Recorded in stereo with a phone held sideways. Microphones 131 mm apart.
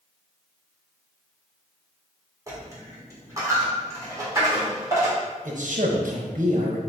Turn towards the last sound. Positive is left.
turn(degrees=-80)